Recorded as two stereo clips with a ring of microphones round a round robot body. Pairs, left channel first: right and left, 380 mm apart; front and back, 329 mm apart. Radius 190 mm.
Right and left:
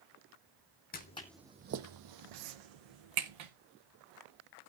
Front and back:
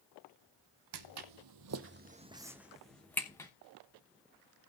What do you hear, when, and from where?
0.9 s footsteps: 155° right, 0.9 m; by 3.5 s 80° left, 1.8 m